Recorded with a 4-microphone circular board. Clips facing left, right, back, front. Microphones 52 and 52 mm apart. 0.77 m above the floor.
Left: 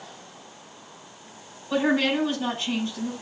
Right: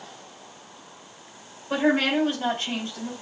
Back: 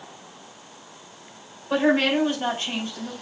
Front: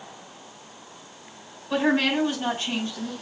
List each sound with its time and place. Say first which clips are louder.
1.7 s a woman speaking: right 1 dB, back 2 dB; 125° right, 2.5 m